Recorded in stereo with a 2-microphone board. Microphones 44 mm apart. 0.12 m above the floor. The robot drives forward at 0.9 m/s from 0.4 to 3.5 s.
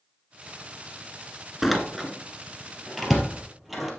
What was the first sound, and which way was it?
A door slam, centre (ahead or behind).